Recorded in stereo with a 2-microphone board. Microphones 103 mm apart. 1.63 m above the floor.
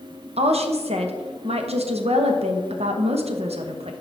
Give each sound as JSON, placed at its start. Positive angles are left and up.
{"t": 0.4, "sound": "a woman speaking", "side_deg": -75, "distance_m": 0.9}